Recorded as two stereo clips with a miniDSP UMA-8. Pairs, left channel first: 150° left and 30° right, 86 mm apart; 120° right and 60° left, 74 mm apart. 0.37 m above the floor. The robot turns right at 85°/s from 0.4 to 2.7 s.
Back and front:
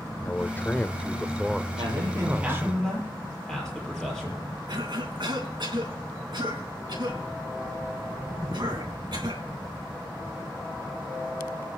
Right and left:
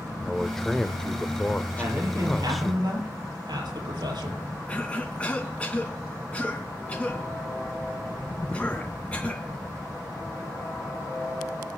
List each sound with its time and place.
0.2 s a man speaking: 145° left, 0.8 m; by 2.8 s 20° right, 0.8 m
1.8 s a man speaking: 10° right, 8 m; by 4.4 s 65° left, 8 m
4.7 s a cough: 50° right, 3 m